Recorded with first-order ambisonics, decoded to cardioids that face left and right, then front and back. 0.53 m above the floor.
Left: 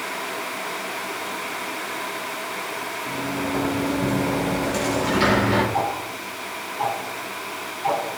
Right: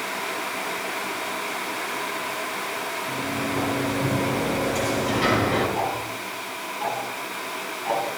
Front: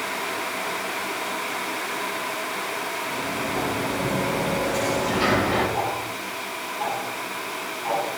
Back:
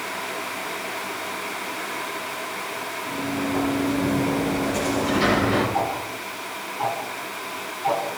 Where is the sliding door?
95° left, 7.5 m.